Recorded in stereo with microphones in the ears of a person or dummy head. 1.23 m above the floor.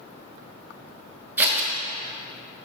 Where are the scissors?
10° right (ahead or behind), 2.0 m.